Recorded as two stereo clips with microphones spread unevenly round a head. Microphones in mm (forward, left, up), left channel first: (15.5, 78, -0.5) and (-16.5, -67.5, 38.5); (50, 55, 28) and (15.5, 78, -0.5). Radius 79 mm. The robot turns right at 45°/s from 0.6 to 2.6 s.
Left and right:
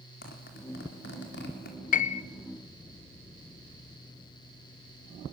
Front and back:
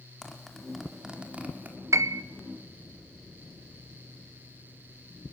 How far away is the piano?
About 0.7 m.